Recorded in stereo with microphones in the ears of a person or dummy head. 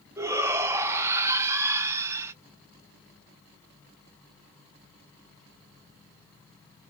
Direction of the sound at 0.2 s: 10° right (ahead or behind).